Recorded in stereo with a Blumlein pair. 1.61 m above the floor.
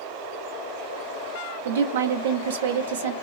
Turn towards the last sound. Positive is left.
turn(degrees=-60)